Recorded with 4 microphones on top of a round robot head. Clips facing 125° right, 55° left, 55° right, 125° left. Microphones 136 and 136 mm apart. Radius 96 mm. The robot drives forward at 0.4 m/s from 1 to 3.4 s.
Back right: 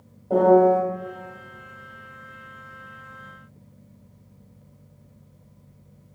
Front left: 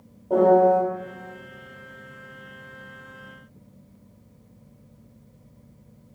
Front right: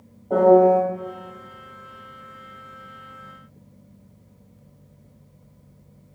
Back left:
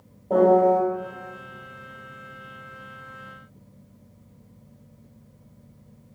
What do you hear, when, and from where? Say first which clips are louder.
0.3 s a piano: back right 1 dB, front right 3 dB; 160° left, 1.2 m